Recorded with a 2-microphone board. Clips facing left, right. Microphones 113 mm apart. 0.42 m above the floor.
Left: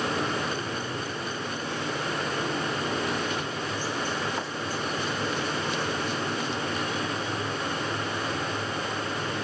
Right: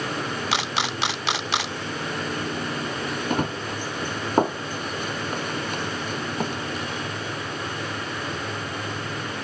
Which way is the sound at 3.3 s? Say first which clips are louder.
Right 5 dB; 50° right (ahead or behind).